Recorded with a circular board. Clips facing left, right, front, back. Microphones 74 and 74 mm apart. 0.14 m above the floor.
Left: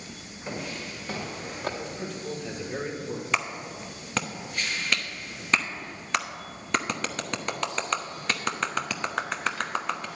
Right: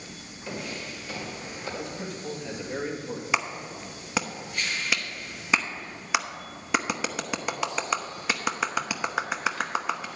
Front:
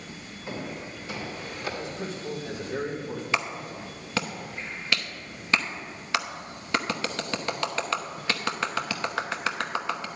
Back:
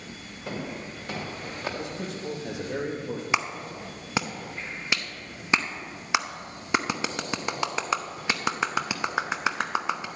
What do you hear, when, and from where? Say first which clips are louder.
0.5 s footsteps: even, back 1 dB; 155° left, 3.5 m; by 1.7 s 120° left, 3 m
1.8 s a man speaking: even, even; 175° right, 3 m
3.3 s a clap: right 2 dB, back 1 dB; 155° right, 0.8 m